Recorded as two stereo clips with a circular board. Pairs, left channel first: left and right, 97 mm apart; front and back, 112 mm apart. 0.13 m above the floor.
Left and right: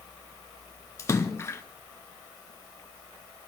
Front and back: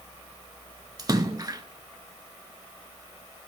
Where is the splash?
140° left, 0.9 m.